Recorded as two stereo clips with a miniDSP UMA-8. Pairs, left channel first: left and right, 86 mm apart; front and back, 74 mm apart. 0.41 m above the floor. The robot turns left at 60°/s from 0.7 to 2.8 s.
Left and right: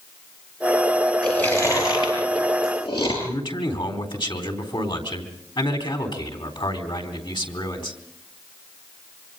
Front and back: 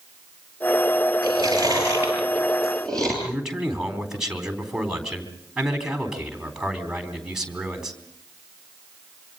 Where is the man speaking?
100° left, 4 m.